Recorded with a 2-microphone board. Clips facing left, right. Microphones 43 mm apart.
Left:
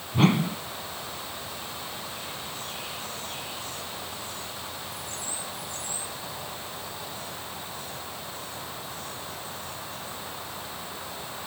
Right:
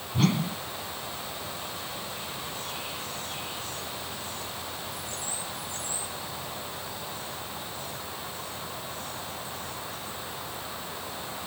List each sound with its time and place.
0.1 s a whoosh: 35° left (ahead or behind)